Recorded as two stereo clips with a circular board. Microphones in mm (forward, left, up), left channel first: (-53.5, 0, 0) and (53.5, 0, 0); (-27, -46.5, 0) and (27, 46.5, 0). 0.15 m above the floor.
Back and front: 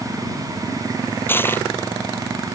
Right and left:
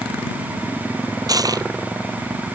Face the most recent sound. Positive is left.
turn(degrees=110)